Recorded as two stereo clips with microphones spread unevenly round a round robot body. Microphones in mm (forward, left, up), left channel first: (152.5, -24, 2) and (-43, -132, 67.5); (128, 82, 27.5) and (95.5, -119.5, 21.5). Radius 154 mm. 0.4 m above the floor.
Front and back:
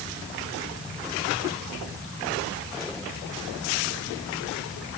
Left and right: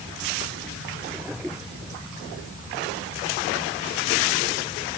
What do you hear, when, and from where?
Only background noise.